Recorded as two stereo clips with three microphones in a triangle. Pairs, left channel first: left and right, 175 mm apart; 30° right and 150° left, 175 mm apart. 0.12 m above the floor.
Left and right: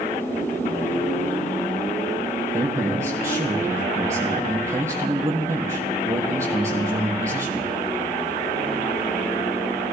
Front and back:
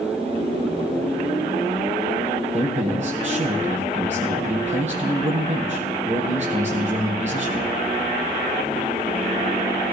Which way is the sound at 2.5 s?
165° right.